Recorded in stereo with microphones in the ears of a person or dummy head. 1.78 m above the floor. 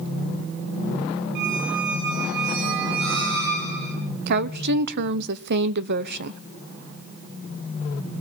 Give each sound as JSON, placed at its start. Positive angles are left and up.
{"t": 1.4, "sound": "a squeak", "side_deg": -70, "distance_m": 5.0}
{"t": 4.3, "sound": "a woman speaking", "side_deg": -65, "distance_m": 0.9}